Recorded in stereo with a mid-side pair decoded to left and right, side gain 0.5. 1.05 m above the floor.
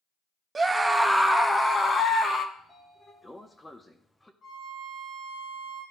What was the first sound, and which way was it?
A scream, 30° right.